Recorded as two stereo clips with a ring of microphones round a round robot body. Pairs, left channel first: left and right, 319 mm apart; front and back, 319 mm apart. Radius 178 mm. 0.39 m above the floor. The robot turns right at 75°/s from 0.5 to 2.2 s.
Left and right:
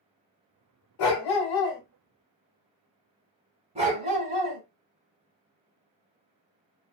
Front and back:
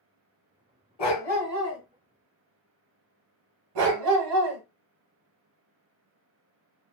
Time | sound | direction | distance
1.0 | a dog barking | 75° left | 0.9 m
3.8 | a dog barking | 165° right | 0.7 m